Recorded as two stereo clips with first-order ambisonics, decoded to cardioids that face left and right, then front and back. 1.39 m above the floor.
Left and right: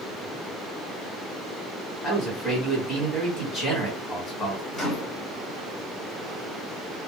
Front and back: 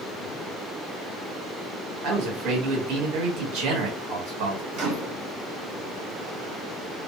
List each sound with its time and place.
2.0 s a man speaking: 170° left, 1.5 m
4.7 s a microwave: 160° left, 1.6 m